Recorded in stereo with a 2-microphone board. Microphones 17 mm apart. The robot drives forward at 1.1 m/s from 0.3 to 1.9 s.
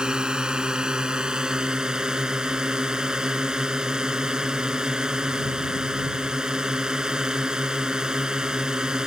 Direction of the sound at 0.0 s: 65° right (ahead or behind).